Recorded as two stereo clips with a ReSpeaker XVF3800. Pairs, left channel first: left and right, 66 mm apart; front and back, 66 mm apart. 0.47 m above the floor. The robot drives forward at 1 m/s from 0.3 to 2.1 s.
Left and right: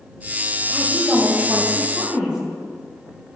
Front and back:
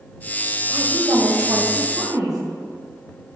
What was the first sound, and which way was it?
A woman speaking, 155° right.